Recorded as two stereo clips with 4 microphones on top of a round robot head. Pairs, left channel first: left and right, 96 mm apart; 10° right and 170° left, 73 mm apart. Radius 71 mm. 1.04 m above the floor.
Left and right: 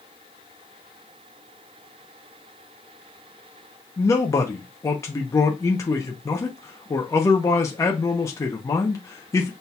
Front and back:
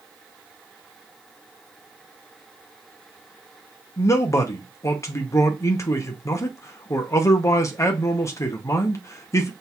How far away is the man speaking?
About 0.7 m.